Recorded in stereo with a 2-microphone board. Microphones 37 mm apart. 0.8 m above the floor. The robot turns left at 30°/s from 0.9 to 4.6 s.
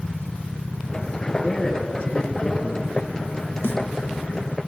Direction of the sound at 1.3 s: 170° left.